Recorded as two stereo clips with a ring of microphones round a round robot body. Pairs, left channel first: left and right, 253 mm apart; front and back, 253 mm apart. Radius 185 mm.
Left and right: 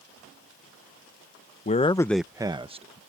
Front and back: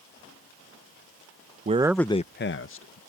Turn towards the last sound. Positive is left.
turn(degrees=-25)